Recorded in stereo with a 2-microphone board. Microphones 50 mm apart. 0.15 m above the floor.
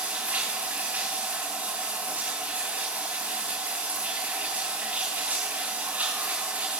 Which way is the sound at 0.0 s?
25° right (ahead or behind).